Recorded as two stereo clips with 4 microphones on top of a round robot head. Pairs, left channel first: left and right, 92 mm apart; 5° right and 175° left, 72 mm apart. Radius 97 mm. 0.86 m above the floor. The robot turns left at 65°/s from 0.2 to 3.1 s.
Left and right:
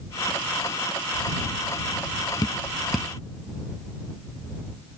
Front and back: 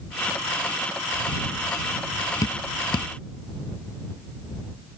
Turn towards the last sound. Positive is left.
turn(degrees=-10)